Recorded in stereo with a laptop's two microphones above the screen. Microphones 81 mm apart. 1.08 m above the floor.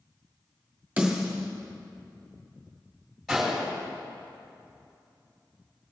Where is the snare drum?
15° right (ahead or behind), 1.9 m.